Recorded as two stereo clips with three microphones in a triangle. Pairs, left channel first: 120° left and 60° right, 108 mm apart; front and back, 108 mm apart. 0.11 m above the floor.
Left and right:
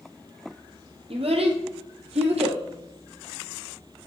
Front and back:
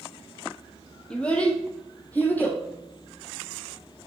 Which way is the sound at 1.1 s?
80° right.